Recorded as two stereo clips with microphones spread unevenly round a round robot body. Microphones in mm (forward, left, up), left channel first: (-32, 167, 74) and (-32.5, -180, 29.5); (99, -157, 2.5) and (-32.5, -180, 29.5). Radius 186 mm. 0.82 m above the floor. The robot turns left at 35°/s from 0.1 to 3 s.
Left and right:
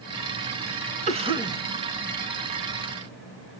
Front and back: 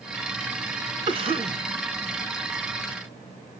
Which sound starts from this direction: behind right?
A cough, at 1.1 s.